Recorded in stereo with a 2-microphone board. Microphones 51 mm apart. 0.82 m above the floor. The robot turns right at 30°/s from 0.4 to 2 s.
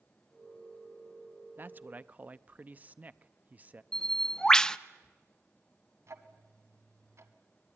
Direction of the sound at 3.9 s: 10° left (ahead or behind).